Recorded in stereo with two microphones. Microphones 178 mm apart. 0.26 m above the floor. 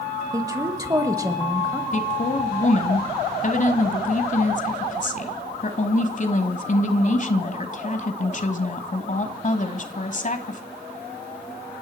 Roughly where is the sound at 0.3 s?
Centre.